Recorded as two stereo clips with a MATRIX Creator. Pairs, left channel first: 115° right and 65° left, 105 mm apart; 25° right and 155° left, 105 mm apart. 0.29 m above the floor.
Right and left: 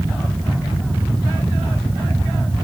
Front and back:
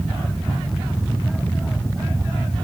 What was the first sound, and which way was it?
Only background noise.